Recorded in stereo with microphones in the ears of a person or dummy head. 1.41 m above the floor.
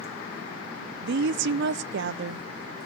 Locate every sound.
1.0 s a woman speaking: 60° right (ahead or behind), 0.6 m